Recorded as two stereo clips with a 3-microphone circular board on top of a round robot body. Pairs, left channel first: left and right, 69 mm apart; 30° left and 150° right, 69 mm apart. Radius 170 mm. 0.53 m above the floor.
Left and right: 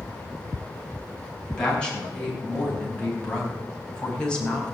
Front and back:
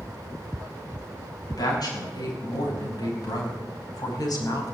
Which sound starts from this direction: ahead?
A woman speaking, at 1.5 s.